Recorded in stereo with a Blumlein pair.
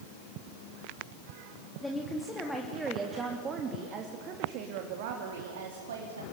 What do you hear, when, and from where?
1.8 s a woman speaking: 5° left, 3 m; by 6.2 s 65° right, 3.5 m